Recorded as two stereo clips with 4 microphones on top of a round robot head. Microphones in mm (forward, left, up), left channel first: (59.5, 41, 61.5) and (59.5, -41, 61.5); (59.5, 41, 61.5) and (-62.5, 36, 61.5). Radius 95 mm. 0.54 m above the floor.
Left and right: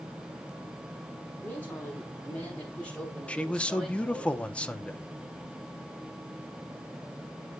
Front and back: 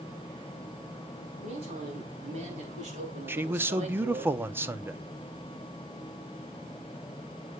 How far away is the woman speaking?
About 6 m.